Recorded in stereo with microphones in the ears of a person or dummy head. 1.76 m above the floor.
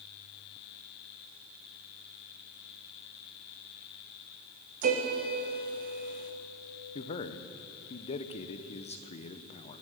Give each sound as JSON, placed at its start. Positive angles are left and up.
{"t": 4.8, "sound": "a piano", "side_deg": -45, "distance_m": 1.2}
{"t": 7.0, "sound": "a man speaking", "side_deg": 30, "distance_m": 0.8}